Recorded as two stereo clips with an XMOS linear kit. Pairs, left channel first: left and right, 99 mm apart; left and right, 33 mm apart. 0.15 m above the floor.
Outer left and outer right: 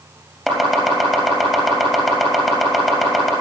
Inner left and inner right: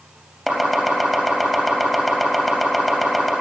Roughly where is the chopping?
Centre.